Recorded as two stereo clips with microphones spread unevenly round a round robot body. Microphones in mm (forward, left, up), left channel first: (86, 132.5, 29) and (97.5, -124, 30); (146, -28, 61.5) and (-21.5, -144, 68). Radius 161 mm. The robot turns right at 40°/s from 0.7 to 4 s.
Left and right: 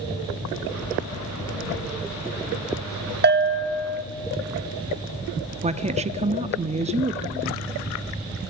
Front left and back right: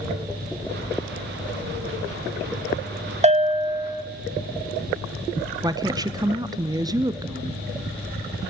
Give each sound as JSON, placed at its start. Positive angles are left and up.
{"t": 3.2, "sound": "a bell", "azimuth_deg": -105, "distance_m": 1.1}
{"t": 5.6, "sound": "a woman speaking", "azimuth_deg": -95, "distance_m": 0.8}